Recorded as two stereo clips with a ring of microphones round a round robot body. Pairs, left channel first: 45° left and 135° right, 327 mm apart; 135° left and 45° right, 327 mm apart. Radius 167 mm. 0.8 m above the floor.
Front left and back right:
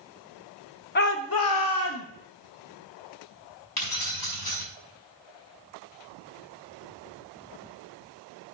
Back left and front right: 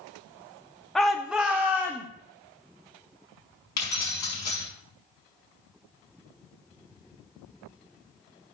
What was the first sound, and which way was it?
A shout, 50° left.